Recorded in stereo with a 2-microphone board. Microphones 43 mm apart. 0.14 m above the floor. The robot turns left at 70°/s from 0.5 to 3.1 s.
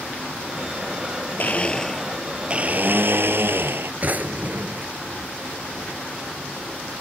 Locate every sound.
1.4 s a blender: 45° left; by 3.9 s 75° right
4.0 s a drawer: 40° right (ahead or behind)